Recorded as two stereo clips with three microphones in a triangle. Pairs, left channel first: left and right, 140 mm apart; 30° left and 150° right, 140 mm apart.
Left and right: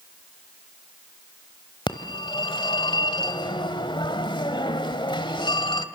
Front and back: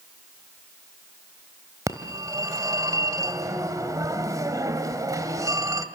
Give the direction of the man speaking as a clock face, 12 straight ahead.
I don't hear a man speaking.